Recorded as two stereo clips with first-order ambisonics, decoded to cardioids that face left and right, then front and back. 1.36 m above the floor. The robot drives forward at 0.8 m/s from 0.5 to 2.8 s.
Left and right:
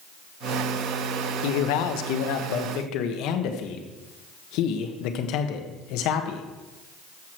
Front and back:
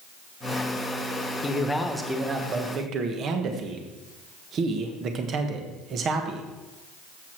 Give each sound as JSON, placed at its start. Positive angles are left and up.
{"t": 1.4, "sound": "a man speaking", "azimuth_deg": 70, "distance_m": 1.2}